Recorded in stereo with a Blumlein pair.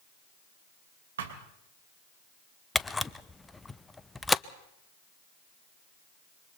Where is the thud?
60° right, 3 m.